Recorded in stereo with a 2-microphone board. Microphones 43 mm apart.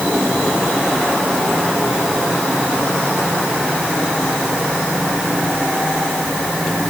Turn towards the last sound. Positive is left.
No sound to turn to.